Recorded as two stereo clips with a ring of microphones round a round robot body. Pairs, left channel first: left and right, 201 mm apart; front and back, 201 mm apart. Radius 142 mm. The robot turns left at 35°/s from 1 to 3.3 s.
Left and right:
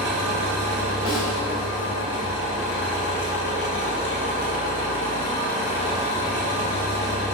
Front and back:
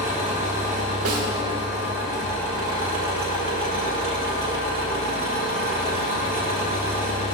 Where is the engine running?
110° right, 1.7 m; by 7.3 s 170° left, 1.7 m.